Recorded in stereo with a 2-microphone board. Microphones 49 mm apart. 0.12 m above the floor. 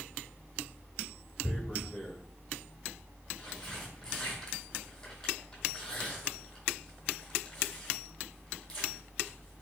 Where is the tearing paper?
15° left (ahead or behind), 1.2 m.